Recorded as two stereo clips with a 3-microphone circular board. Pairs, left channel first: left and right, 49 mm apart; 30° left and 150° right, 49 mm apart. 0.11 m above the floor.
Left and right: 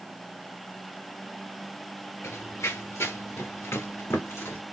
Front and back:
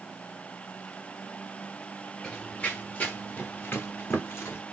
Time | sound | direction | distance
2.2 | running footsteps | 100° left | 0.8 m